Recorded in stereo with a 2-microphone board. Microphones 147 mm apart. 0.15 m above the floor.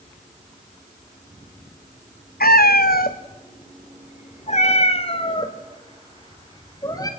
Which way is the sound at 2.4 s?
85° left.